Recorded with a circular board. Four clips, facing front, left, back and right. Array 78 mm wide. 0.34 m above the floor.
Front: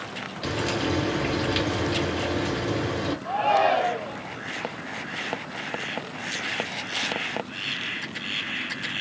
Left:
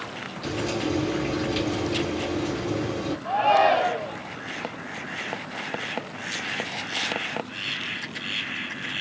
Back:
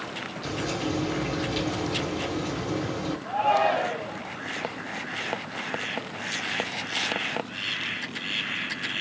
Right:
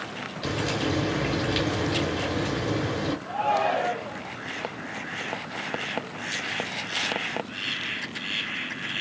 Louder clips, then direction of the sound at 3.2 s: Left 7 dB, front 1 dB; 65° left.